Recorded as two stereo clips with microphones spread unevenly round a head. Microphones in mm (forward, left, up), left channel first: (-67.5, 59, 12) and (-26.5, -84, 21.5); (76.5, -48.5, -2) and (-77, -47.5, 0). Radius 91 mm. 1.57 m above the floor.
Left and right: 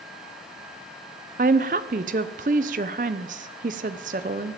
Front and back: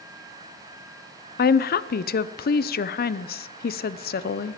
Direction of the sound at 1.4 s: 25° right.